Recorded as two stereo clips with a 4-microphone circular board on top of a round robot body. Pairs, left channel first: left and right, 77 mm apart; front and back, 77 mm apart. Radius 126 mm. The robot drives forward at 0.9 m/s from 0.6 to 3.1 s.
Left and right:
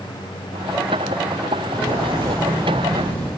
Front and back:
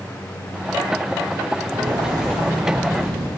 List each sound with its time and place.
1.7 s footsteps: 155° left, 1.8 m; by 3.3 s 160° left, 1.9 m